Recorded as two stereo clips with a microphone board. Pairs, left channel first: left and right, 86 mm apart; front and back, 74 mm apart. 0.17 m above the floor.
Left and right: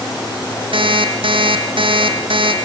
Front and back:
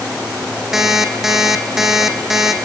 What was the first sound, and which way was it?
An alarm clock, 95° right.